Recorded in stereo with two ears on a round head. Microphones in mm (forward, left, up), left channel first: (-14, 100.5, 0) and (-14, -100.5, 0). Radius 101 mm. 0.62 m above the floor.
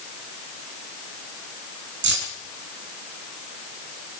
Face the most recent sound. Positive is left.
turn(degrees=-50)  # may be behind; listen again after turning